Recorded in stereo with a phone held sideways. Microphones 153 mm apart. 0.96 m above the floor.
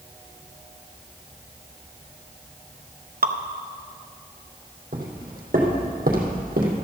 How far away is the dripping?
About 0.7 m.